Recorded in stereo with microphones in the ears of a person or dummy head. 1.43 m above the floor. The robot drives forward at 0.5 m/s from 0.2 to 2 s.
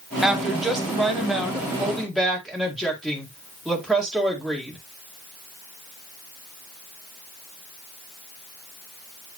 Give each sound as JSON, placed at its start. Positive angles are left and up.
{"t": 0.2, "sound": "a woman speaking", "side_deg": -5, "distance_m": 1.0}